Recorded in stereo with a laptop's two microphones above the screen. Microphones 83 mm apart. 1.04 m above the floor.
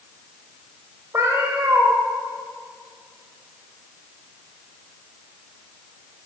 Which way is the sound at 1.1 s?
30° right (ahead or behind).